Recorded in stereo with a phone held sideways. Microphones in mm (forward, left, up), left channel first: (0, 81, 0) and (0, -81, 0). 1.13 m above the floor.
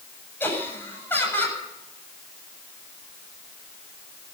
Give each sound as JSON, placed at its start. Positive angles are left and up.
{"t": 0.4, "sound": "laughter", "side_deg": 15, "distance_m": 7.5}